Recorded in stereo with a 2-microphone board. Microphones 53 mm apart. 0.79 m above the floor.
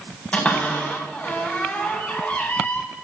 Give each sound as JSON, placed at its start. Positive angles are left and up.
{"t": 0.3, "sound": "a cupboard door", "side_deg": 25, "distance_m": 4.0}